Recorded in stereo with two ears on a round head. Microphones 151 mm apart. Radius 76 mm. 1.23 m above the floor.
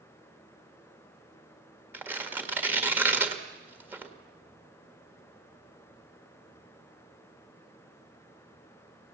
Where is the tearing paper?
10° right (ahead or behind), 1.5 m.